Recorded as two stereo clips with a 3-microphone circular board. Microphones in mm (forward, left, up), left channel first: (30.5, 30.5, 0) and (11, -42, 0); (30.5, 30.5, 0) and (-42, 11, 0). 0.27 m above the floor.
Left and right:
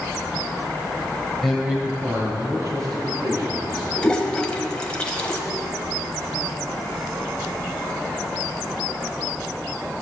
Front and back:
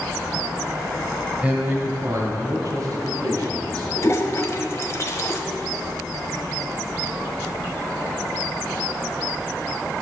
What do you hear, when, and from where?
1.4 s a man speaking: 160° left, 1.1 m; by 3.9 s 130° right, 3.5 m
4.0 s a toilet flushing: 5° left, 1.1 m